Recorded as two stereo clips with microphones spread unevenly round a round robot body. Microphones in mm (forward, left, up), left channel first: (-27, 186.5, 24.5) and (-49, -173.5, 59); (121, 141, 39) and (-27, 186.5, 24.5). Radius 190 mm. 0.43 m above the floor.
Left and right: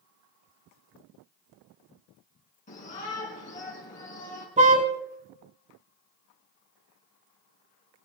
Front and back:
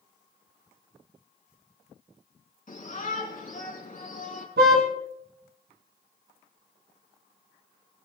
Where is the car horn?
165° right, 2.5 m.